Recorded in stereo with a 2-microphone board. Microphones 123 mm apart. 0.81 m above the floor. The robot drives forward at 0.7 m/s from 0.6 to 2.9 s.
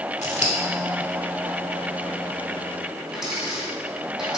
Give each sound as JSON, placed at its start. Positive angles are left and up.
{"t": 0.2, "sound": "scissors", "side_deg": 70, "distance_m": 1.3}
{"t": 3.1, "sound": "a dropped coin", "side_deg": 0, "distance_m": 3.5}